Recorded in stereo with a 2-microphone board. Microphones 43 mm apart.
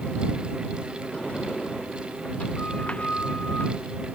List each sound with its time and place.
1.1 s a sliding door: 30° left (ahead or behind)